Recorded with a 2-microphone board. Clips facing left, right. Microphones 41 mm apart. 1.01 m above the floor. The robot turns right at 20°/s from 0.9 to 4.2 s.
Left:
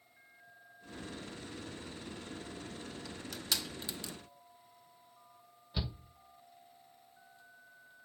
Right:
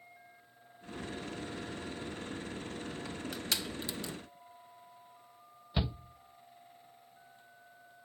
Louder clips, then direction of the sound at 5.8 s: Right 5 dB; 35° right (ahead or behind).